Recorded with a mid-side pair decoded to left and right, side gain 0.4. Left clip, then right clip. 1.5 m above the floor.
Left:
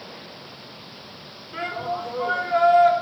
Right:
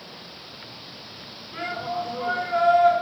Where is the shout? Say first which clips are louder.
Left 1 dB; 40° left, 4 m.